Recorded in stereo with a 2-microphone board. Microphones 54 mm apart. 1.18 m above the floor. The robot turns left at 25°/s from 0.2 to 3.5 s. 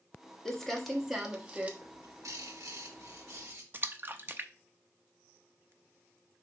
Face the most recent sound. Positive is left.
turn(degrees=-40)  # may be behind; listen again after turning